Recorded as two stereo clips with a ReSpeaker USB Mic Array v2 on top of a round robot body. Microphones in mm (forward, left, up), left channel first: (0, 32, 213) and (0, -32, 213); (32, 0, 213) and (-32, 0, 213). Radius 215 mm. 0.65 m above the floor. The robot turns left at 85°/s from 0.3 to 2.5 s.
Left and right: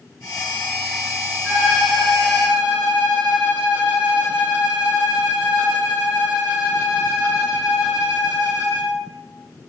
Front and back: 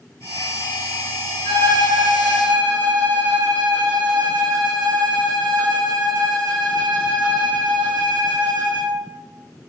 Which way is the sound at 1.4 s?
30° right.